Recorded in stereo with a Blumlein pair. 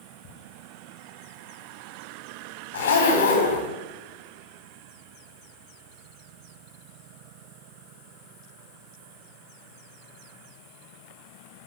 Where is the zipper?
65° left, 3 m.